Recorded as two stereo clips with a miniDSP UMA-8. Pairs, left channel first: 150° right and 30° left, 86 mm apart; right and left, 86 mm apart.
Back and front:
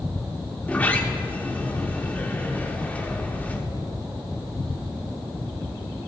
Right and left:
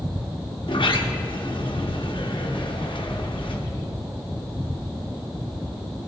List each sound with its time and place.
0.6 s a sliding door: 80° right, 0.8 m